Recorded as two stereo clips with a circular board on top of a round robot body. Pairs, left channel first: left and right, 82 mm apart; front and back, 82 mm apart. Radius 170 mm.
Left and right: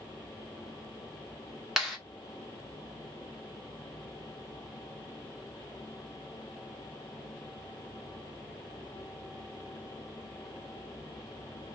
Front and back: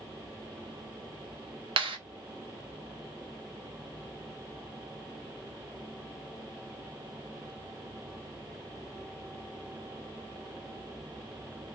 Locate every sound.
1.8 s a clap: 175° right, 2 m